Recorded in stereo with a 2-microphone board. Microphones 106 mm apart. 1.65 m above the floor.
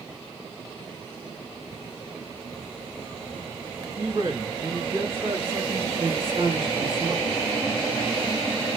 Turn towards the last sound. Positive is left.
turn(degrees=-55)  # may be behind; listen again after turning